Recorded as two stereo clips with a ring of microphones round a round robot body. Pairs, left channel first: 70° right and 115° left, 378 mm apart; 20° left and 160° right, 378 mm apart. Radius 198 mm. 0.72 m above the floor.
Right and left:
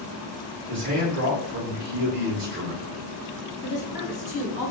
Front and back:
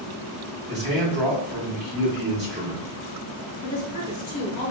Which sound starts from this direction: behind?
A man speaking, at 0.7 s.